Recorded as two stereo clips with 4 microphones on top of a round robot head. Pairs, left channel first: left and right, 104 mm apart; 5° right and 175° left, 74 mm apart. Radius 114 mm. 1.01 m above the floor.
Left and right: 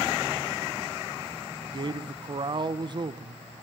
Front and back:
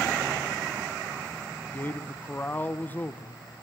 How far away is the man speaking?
About 1.1 m.